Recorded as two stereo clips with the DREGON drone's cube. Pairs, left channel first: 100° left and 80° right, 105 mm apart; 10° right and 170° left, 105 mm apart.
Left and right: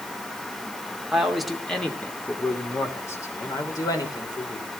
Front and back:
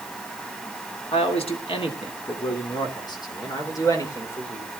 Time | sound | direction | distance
1.1 | a man speaking | 5° left | 3 m